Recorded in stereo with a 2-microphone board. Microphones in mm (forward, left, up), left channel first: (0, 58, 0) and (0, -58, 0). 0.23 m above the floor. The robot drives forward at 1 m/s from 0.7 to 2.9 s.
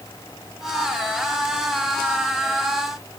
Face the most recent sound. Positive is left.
No sound to turn to.